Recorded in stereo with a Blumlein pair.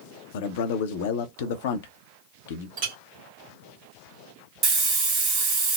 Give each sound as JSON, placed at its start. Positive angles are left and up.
{"t": 0.3, "sound": "a man speaking", "azimuth_deg": 55, "distance_m": 0.6}
{"t": 2.8, "sound": "a clink", "azimuth_deg": -45, "distance_m": 1.4}
{"t": 4.6, "sound": "a hiss", "azimuth_deg": -35, "distance_m": 1.7}